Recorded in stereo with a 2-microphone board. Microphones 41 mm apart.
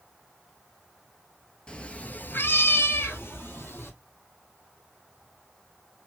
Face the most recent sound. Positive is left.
turn(degrees=65)  # may be behind; listen again after turning